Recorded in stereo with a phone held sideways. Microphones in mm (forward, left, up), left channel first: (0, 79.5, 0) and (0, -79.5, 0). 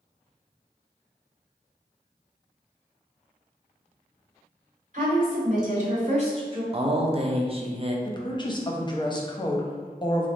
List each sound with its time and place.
4.9 s a woman speaking: 55° right (ahead or behind), 1.6 m; by 6.6 s 35° right (ahead or behind), 1.0 m
6.7 s a man speaking: 40° right (ahead or behind), 0.5 m
8.1 s a woman speaking: 30° left (ahead or behind), 0.6 m